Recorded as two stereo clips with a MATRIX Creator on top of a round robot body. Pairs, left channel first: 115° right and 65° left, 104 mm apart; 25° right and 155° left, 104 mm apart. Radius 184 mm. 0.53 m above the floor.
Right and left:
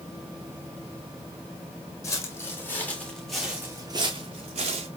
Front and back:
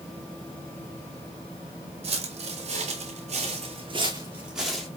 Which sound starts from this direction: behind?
Footsteps, at 2.0 s.